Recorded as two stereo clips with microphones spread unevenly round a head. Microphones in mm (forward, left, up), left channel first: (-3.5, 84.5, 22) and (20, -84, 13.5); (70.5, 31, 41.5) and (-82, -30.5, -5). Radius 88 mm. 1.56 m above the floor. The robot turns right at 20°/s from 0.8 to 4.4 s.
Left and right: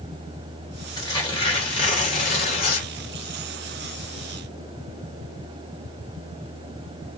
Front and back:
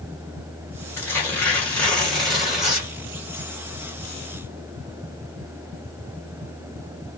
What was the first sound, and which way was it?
Tearing paper, 55° left.